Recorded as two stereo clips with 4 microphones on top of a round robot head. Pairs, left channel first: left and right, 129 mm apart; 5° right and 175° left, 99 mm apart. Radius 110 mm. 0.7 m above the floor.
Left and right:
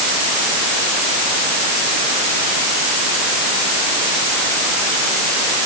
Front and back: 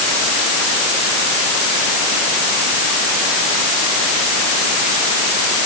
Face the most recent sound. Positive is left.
No sound to turn to.